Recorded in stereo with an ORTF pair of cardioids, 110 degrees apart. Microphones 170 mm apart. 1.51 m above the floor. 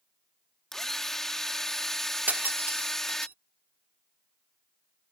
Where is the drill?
Straight ahead.